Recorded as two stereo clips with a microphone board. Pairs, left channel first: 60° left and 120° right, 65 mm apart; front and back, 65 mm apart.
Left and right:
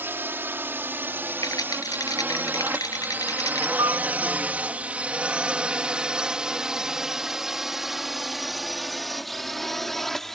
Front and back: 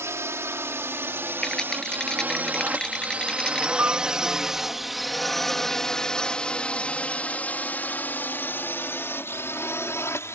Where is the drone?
160° right; by 10.3 s 25° right.